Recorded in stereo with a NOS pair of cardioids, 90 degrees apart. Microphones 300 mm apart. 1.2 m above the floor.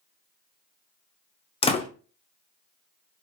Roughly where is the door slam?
Ahead.